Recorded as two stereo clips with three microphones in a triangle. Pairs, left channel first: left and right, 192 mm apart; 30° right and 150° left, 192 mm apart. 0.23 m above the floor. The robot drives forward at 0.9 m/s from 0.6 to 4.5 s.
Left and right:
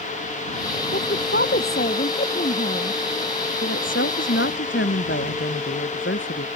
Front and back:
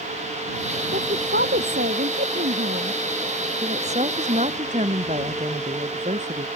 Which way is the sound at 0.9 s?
115° left.